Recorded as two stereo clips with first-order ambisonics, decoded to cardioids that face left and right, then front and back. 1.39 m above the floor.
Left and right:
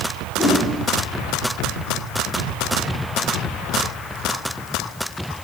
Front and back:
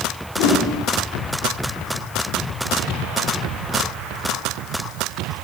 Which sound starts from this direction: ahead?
A whoosh, at 0.4 s.